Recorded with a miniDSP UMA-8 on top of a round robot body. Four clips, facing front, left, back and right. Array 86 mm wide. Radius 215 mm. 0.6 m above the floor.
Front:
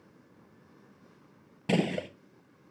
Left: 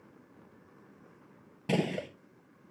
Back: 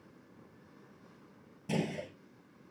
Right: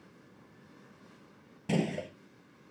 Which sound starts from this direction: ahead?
A gunshot, at 1.7 s.